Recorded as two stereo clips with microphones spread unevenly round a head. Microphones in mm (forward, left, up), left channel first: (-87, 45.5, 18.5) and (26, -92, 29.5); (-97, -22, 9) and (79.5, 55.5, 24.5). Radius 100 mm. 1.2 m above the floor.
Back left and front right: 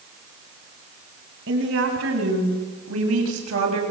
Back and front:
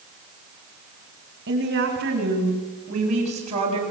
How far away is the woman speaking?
About 8 m.